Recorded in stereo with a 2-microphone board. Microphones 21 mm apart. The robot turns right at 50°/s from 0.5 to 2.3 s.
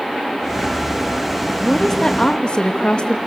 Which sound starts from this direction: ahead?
A woman speaking, at 1.6 s.